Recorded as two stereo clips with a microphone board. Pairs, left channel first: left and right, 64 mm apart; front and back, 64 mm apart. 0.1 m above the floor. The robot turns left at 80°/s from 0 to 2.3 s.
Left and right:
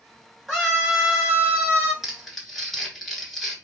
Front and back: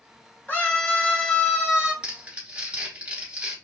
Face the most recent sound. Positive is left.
turn(degrees=180)